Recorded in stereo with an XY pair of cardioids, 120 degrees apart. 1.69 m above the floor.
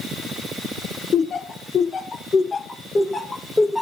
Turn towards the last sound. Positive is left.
turn(degrees=5)